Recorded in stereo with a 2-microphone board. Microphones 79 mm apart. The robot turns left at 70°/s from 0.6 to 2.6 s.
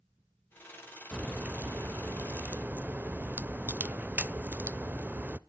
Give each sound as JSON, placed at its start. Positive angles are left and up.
{"t": 1.1, "sound": "a crack", "side_deg": -10, "distance_m": 0.5}